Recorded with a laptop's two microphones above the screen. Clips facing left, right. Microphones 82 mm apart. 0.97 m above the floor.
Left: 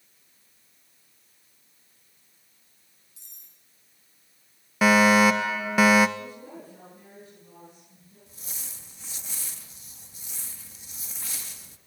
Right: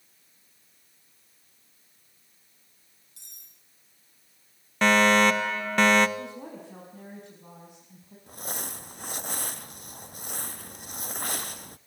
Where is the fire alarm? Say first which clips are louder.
Left 2 dB; 5° left (ahead or behind), 1.2 m.